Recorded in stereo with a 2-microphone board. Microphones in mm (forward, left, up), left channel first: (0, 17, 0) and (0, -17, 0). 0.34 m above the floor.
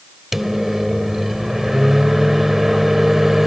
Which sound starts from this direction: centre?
A microwave, at 0.3 s.